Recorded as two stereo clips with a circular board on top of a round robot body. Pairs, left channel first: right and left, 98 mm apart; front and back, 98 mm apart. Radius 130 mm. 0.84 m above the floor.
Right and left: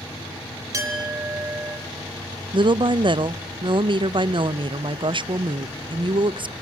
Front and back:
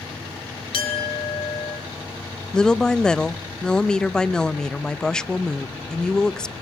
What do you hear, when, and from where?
0.7 s a clink: 30° left, 4 m
2.5 s a woman speaking: 80° left, 0.6 m